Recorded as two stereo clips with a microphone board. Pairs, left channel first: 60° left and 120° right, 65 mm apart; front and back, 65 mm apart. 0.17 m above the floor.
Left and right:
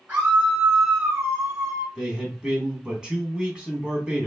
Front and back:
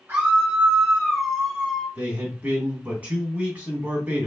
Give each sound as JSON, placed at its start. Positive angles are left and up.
{"t": 0.1, "sound": "a scream", "azimuth_deg": -170, "distance_m": 1.4}
{"t": 1.9, "sound": "a man speaking", "azimuth_deg": -175, "distance_m": 1.4}